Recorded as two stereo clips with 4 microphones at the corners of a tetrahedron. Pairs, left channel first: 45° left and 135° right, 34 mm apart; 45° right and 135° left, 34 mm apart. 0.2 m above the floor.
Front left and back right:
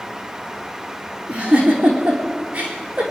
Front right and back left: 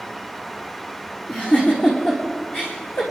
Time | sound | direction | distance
1.3 | a giggle | 85° right | 4.5 m